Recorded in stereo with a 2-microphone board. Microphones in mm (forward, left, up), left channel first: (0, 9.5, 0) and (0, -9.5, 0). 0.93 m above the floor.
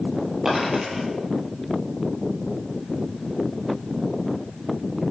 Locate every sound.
0.5 s a dropped coin: 30° right (ahead or behind), 8 m